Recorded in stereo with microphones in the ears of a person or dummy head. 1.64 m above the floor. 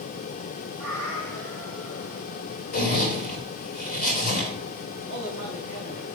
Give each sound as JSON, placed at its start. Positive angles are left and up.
{"t": 0.8, "sound": "a cat meowing", "side_deg": -10, "distance_m": 2.5}
{"t": 2.7, "sound": "a zipper", "side_deg": 45, "distance_m": 2.5}
{"t": 5.1, "sound": "a man speaking", "side_deg": -50, "distance_m": 2.5}